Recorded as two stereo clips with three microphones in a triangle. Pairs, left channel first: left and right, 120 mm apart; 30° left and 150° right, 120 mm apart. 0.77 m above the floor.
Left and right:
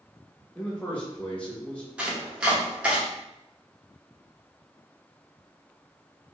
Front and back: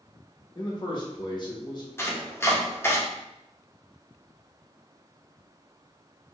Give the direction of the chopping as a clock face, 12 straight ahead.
1 o'clock.